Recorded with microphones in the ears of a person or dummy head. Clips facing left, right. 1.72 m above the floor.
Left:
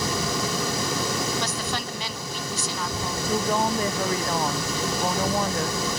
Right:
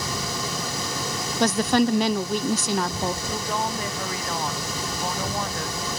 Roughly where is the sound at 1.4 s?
Right.